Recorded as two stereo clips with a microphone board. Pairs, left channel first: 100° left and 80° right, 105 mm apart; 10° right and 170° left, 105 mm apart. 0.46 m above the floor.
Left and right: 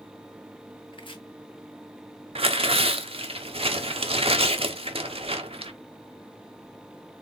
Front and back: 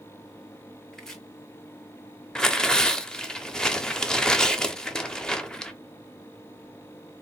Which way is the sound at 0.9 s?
75° left.